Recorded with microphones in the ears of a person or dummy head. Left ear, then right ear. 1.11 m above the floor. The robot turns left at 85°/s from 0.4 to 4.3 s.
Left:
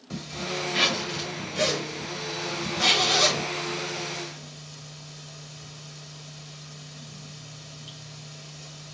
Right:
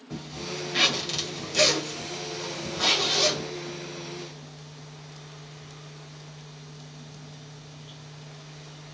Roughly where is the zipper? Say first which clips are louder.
Left 3 dB; left.